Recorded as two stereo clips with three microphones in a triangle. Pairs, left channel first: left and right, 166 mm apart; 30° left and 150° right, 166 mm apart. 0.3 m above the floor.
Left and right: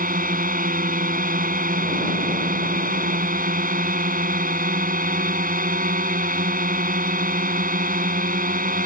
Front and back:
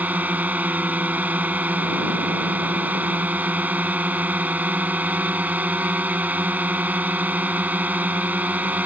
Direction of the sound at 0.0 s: 70° right.